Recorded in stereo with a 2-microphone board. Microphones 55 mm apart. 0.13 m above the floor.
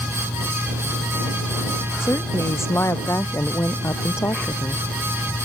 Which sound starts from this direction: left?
A woman speaking, at 2.0 s.